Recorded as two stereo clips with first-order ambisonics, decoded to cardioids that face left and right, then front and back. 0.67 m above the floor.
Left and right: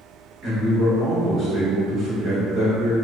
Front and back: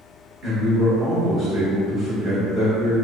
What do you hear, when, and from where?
0.4 s a man speaking: 145° right, 1.4 m